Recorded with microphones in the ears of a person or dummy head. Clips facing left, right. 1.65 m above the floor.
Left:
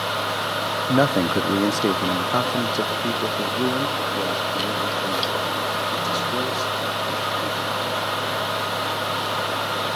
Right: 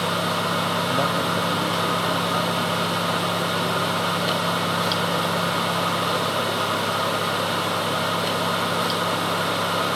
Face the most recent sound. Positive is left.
turn(degrees=80)